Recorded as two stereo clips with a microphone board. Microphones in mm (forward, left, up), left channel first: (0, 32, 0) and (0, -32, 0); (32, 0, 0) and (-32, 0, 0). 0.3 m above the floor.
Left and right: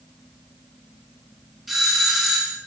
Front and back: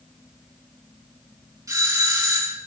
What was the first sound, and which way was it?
A doorbell, 175° right.